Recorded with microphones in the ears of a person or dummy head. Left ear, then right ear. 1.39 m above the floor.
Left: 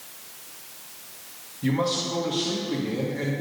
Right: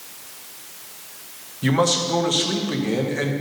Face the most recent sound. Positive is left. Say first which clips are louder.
# right 6 dB
turn(degrees=-40)  # may be behind; listen again after turning